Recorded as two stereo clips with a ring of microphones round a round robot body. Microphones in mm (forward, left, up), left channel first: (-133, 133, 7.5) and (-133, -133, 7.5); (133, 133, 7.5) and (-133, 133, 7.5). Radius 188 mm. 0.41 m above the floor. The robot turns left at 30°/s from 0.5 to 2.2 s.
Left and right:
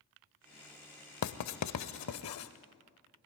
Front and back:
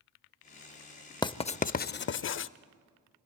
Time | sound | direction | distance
1.2 | writing | 75° left | 0.6 m